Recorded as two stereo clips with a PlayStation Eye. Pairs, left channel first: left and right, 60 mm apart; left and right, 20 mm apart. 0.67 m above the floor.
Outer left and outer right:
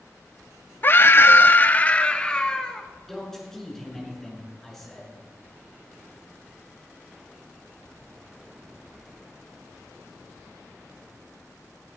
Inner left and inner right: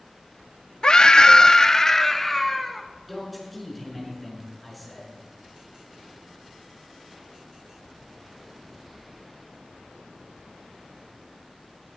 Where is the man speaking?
5° left (ahead or behind), 6.5 m.